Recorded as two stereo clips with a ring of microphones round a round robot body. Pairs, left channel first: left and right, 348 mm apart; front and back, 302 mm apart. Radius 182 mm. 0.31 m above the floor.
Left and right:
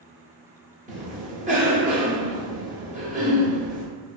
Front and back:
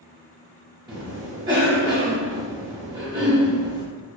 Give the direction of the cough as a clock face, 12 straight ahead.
4 o'clock.